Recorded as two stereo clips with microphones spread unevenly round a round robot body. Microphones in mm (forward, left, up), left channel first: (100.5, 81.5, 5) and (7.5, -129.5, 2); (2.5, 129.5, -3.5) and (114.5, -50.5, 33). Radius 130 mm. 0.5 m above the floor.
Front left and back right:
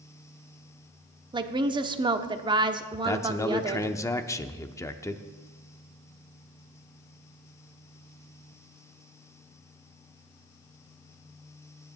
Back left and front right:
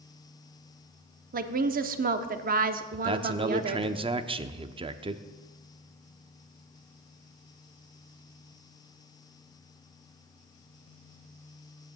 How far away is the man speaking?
About 0.8 m.